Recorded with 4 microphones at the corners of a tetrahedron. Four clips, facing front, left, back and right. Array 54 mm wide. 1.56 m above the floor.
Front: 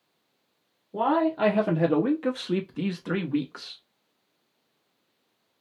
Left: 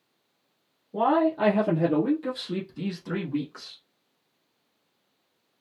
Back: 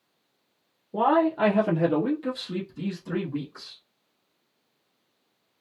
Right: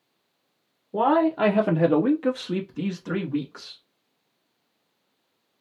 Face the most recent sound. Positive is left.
turn(degrees=0)